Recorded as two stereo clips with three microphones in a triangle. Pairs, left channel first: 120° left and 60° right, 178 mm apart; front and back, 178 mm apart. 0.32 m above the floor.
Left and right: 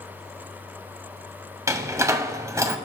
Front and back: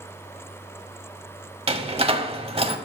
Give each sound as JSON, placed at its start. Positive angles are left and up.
{"t": 1.7, "sound": "a door slam", "azimuth_deg": -130, "distance_m": 1.1}